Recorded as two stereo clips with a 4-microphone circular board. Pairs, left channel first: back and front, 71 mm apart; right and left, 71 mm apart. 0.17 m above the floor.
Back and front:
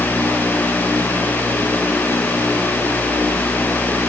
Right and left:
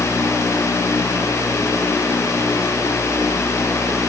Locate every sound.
Only background noise.